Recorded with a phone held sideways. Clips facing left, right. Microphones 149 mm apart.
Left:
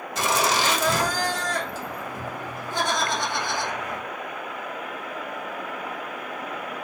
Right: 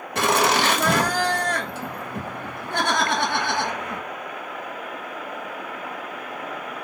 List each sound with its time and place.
0.1 s laughter: 65° right (ahead or behind), 1.0 m